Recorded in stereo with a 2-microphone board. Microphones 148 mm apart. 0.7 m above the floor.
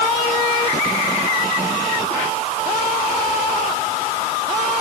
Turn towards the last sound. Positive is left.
No sound to turn to.